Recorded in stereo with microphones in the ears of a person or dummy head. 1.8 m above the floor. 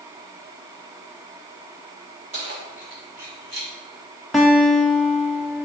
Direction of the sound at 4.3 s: Centre (ahead or behind).